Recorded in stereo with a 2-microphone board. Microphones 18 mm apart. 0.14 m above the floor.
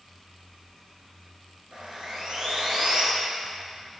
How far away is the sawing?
About 2.0 m.